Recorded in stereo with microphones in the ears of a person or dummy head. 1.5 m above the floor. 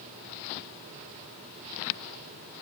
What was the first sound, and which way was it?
Only background noise.